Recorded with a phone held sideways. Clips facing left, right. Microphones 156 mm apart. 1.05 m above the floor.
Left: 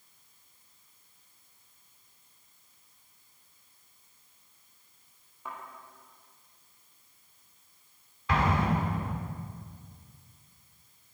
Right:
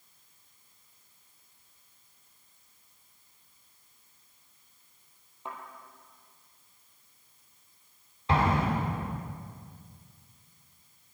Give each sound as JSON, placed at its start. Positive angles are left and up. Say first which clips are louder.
{"t": 5.5, "sound": "a thud", "louder": "right 1 dB", "side_deg": -25, "distance_m": 3.5}
{"t": 8.3, "sound": "an explosion", "louder": "right 1 dB", "side_deg": -30, "distance_m": 2.5}